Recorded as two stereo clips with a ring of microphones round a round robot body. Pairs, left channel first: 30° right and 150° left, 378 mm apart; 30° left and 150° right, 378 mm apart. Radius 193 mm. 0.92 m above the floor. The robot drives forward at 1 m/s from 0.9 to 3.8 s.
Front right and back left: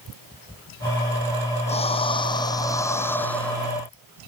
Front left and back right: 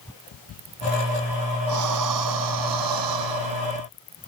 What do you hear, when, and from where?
1.7 s breathing: 105° right; by 3.7 s 120° right